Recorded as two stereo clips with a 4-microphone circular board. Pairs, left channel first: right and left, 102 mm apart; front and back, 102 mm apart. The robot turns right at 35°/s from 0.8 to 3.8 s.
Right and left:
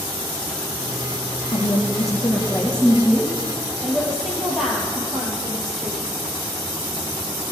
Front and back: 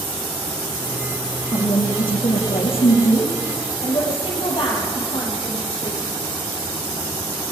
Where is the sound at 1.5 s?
55° right, 5 m; by 3.3 s 10° left, 5 m.